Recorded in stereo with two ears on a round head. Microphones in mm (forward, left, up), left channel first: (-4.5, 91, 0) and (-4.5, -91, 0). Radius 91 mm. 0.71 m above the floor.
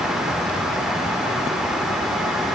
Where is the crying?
No crying in this recording.